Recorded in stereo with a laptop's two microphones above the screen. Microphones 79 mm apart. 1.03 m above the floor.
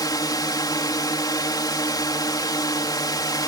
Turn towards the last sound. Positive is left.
turn(degrees=60)  # may be behind; listen again after turning